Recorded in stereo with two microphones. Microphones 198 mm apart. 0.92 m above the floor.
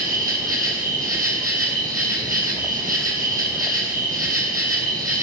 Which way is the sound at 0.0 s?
45° right (ahead or behind).